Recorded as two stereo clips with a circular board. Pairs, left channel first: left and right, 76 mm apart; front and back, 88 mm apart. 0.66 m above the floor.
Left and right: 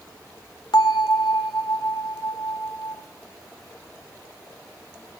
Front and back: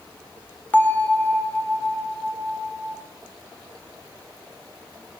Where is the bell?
70° left, 1.7 m.